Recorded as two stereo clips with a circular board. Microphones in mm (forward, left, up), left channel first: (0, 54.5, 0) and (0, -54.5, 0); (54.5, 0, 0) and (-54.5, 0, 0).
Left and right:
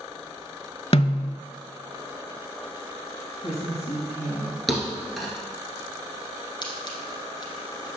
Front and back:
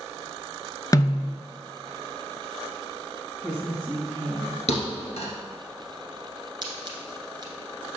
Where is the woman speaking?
90° left, 3 m.